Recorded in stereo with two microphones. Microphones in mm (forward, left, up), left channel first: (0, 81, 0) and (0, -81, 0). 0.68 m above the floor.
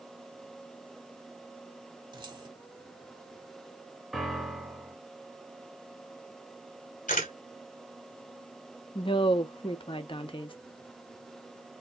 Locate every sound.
2.1 s keys jangling: 30° right (ahead or behind), 1.2 m
4.1 s a piano: centre (ahead or behind), 1.4 m
7.1 s a camera shutter: 55° left (ahead or behind), 2.5 m
8.9 s a woman speaking: 35° left (ahead or behind), 0.8 m